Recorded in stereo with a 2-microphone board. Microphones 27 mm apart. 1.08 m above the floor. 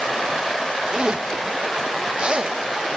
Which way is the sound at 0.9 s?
40° right (ahead or behind).